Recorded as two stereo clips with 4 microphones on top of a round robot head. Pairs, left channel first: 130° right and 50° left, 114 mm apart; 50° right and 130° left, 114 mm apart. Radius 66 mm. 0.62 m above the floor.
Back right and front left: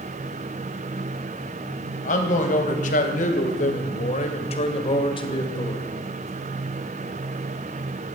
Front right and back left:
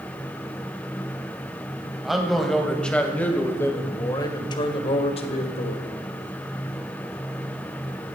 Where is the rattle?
I don't hear a rattle.